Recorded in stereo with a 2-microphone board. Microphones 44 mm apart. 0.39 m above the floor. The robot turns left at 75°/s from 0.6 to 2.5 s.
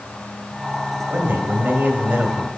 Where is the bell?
I don't hear a bell.